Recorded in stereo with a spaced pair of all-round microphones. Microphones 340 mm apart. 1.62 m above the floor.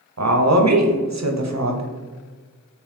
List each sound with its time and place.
0.2 s a woman speaking: 50° right (ahead or behind), 0.6 m